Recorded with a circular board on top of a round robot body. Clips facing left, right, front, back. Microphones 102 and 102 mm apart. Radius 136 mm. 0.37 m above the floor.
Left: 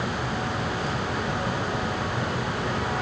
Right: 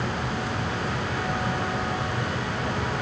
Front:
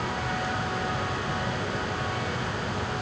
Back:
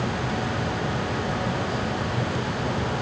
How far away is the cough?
No cough in this recording.